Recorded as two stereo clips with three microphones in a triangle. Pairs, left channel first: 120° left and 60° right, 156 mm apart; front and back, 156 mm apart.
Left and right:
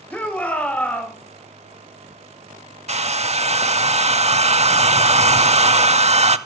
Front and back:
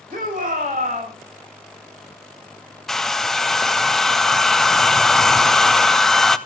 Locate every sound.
0.1 s a shout: 160° right, 3.5 m
2.9 s a hair dryer: 85° right, 0.5 m